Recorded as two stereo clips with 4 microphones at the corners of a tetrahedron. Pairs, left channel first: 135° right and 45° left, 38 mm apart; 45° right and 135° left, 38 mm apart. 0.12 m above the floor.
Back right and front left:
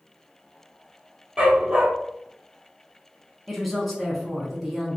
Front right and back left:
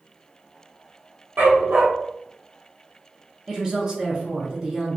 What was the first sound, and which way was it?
A dog barking, 110° left.